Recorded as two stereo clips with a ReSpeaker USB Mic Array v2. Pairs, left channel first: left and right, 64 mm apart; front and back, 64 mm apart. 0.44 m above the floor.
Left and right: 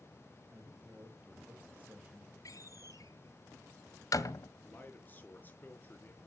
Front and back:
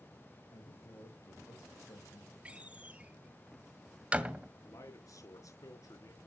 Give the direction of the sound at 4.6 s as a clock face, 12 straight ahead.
11 o'clock.